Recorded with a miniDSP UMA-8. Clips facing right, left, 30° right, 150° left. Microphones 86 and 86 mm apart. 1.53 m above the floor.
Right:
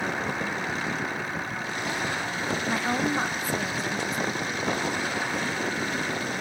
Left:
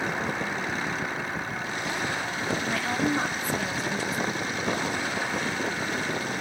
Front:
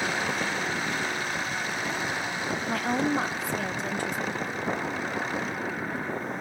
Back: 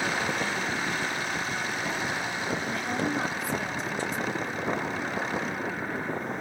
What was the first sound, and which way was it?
A woman speaking, 30° right.